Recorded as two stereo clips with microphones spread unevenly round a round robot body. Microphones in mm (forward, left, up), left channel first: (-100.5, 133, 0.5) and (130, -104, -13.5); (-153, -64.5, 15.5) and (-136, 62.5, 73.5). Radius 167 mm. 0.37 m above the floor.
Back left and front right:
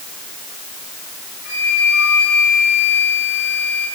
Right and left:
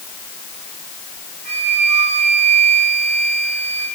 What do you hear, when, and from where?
1.4 s a flute: 120° left, 9.5 m